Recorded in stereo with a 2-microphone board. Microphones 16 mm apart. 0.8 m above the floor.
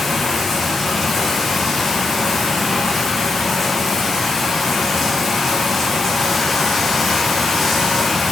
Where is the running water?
Centre (ahead or behind), 1.5 m.